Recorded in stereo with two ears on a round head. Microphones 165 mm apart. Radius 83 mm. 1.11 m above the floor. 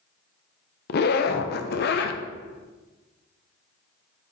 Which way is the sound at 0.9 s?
55° left (ahead or behind).